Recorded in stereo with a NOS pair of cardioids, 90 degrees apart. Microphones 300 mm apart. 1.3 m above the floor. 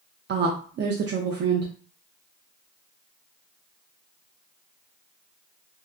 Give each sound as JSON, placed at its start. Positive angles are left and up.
{"t": 0.3, "sound": "a woman speaking", "azimuth_deg": -40, "distance_m": 0.5}